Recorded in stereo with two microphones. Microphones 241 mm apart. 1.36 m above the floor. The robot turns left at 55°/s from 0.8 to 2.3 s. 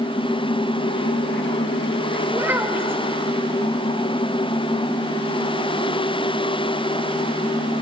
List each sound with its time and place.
2.3 s a child speaking: 10° right (ahead or behind), 0.9 m